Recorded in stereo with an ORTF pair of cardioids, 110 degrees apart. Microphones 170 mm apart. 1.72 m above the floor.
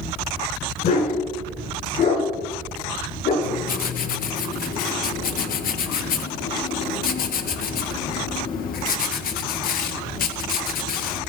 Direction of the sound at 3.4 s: 60° left.